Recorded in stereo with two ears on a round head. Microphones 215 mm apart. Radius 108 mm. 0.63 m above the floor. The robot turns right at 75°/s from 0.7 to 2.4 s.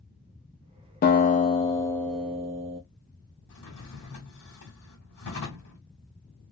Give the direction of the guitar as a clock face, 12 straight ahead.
9 o'clock.